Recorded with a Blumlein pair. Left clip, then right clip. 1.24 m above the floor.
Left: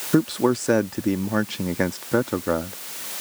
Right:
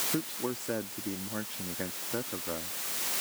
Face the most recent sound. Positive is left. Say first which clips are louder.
# left 14 dB
turn(degrees=55)